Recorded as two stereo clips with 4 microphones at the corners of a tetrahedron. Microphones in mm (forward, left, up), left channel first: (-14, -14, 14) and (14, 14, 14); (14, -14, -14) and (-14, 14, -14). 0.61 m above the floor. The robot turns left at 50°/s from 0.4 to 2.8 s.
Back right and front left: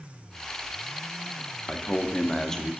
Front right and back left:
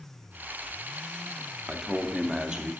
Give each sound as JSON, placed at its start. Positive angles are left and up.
{"t": 1.7, "sound": "a man speaking", "azimuth_deg": -150, "distance_m": 0.7}